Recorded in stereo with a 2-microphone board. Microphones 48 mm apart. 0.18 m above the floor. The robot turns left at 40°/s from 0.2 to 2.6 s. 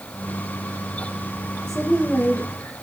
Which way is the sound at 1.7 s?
170° left.